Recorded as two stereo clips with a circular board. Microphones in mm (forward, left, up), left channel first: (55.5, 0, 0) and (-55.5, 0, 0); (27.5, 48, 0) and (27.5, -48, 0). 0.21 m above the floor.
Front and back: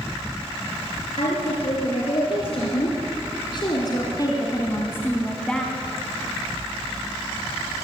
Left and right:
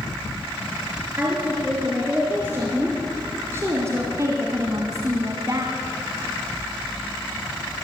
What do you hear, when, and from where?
1.2 s a woman speaking: 20° right, 3.5 m; by 5.7 s 85° right, 1.6 m